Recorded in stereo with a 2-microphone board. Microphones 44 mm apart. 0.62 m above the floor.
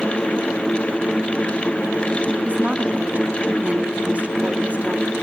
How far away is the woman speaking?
About 1.2 m.